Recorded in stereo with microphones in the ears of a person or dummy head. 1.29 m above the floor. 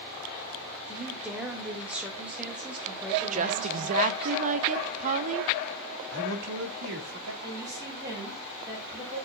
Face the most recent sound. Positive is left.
turn(degrees=-10)  # may be behind; listen again after turning